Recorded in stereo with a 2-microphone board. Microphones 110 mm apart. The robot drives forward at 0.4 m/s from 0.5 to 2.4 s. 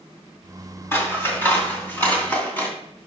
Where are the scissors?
20° left (ahead or behind), 2 m.